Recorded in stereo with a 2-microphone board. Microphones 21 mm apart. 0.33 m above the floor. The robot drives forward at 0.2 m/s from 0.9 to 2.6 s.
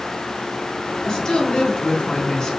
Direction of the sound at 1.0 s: 45° left (ahead or behind).